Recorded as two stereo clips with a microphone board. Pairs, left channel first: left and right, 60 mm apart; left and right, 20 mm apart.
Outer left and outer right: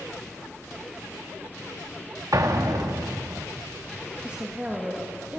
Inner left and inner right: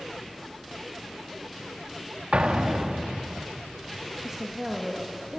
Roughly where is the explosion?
Right.